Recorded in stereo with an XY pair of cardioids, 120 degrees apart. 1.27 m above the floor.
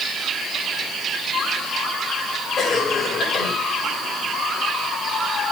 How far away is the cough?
About 7.5 m.